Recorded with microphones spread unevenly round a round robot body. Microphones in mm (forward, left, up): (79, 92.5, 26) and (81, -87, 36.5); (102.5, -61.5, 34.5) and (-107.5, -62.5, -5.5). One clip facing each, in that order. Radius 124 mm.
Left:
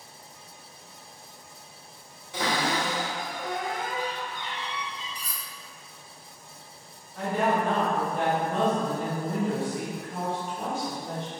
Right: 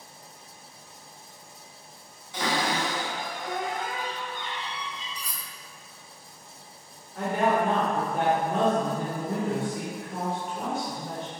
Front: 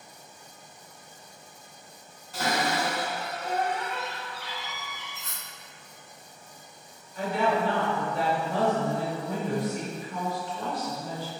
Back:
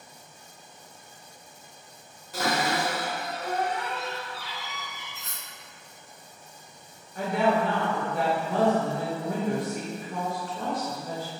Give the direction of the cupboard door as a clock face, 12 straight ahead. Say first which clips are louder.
Even, back 1 dB; 7 o'clock.